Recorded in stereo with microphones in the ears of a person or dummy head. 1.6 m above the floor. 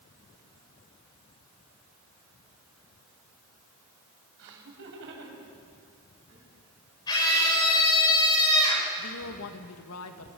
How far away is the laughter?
About 7.5 m.